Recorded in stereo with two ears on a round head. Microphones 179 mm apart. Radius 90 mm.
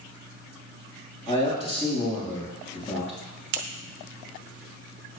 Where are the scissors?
65° right (ahead or behind), 0.9 m.